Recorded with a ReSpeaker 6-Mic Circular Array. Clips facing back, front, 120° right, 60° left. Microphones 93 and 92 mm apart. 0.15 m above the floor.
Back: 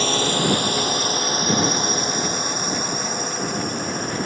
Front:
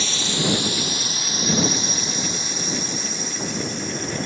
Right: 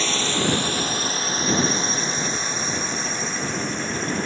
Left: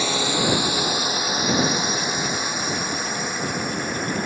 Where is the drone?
140° left.